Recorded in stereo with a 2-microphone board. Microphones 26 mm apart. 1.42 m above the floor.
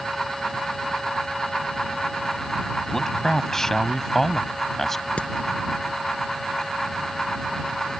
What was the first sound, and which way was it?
A man speaking, 15° left (ahead or behind).